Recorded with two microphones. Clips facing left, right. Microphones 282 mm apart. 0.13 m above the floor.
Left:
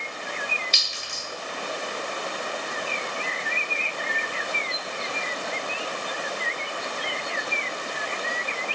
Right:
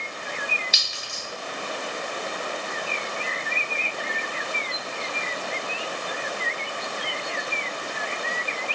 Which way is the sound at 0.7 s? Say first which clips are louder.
Even; 10° right (ahead or behind).